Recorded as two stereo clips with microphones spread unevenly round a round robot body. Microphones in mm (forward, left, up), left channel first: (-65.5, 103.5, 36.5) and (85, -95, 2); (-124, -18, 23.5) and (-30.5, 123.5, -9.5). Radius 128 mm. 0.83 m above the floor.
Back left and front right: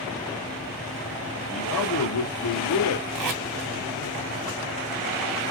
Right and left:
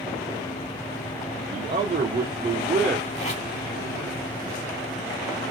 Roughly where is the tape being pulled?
Ahead right.